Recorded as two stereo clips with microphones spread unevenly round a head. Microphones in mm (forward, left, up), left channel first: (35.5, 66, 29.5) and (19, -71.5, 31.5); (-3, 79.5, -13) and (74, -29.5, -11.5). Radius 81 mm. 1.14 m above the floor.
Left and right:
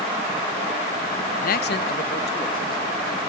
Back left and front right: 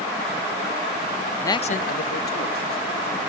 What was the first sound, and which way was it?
A man speaking, 50° left.